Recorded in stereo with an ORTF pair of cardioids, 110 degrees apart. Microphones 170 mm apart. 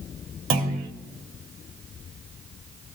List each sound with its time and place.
0.5 s a clunk: 70° right, 1.4 m